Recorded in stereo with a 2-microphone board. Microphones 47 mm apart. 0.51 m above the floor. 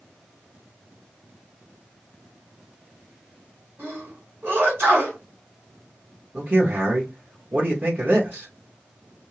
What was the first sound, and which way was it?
A sneeze, 55° right (ahead or behind).